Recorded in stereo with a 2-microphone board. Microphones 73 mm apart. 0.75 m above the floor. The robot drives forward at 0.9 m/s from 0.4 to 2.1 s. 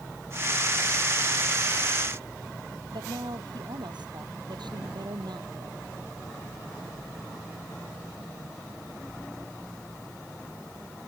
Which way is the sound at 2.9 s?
85° right.